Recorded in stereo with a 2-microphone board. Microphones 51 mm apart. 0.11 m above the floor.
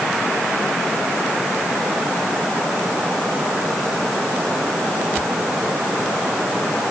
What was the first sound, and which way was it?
Only background noise.